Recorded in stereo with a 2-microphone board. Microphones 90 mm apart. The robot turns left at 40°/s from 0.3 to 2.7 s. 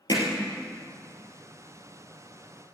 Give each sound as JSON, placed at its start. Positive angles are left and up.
{"t": 0.1, "sound": "hammering", "side_deg": 45, "distance_m": 2.5}